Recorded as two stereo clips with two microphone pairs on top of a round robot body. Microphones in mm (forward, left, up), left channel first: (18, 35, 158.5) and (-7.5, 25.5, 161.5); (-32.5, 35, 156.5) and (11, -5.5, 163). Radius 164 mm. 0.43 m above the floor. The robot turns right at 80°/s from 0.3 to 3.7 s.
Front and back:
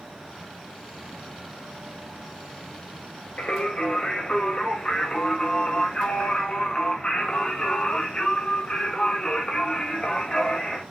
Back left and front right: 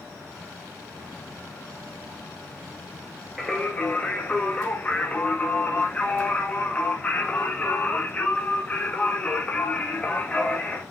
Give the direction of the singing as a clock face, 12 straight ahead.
10 o'clock.